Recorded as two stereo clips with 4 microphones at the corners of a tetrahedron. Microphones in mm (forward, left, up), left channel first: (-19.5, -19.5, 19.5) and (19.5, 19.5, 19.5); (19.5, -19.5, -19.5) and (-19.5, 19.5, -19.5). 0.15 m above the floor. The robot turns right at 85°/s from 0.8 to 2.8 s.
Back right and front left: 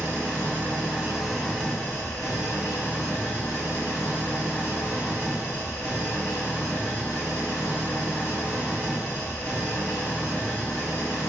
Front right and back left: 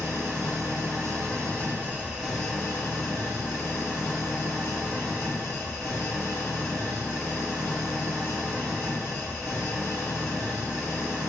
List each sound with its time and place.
0.0 s an engine running: 95° left, 1.7 m; by 11.3 s 95° right, 1.7 m